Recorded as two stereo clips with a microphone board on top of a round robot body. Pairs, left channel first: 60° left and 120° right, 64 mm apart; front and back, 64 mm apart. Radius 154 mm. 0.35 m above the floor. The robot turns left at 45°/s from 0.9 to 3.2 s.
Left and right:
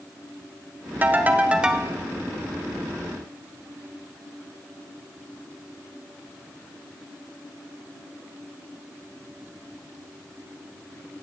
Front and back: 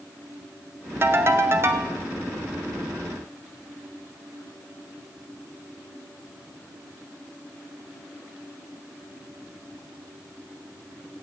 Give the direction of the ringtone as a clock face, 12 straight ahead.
5 o'clock.